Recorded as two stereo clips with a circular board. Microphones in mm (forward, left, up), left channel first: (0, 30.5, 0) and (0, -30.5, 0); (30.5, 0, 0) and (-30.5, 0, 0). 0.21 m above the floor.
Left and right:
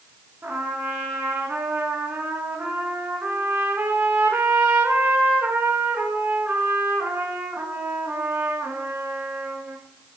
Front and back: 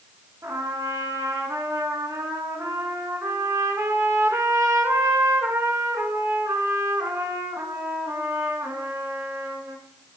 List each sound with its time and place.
0.4 s a trumpet: 150° right, 1.3 m